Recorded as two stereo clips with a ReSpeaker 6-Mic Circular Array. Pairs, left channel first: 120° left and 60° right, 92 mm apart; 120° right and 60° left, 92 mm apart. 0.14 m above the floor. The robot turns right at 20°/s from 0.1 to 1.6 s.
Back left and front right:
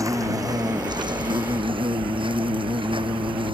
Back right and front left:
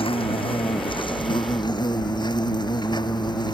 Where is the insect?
115° right; by 3.6 s 85° right.